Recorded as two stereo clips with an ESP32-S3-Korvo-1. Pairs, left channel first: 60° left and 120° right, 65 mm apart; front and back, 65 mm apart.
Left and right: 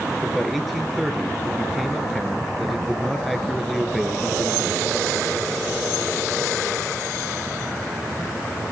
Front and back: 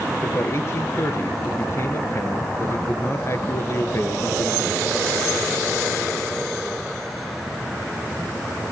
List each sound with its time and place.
0.2 s a man speaking: 30° right, 2 m